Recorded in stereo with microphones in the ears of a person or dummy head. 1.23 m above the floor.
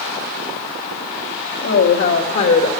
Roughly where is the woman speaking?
Left.